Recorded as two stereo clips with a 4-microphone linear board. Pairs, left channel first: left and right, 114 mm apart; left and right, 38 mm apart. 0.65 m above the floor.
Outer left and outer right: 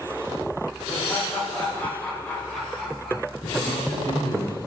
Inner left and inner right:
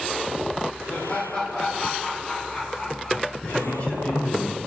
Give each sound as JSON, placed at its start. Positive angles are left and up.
{"t": 0.9, "sound": "laughter", "side_deg": 25, "distance_m": 3.0}
{"t": 3.4, "sound": "a man speaking", "side_deg": 30, "distance_m": 4.5}